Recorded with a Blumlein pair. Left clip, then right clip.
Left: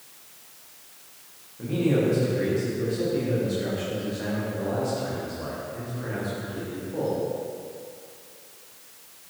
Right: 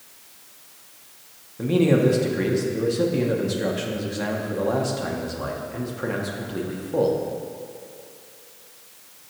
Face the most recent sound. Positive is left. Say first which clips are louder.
# right 5 dB
turn(degrees=-60)